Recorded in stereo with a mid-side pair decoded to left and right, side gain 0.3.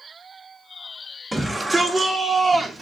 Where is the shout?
15° right, 1.2 m; by 2.8 s 50° right, 1.3 m.